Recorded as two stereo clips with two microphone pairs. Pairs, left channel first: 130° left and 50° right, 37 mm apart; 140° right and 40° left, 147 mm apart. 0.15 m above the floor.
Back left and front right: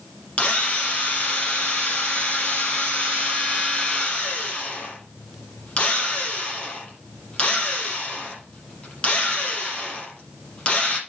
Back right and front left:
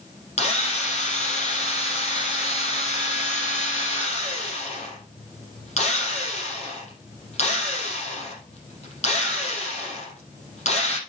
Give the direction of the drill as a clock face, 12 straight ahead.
6 o'clock.